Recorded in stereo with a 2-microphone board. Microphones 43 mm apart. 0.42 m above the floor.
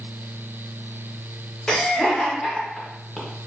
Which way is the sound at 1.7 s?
10° left (ahead or behind).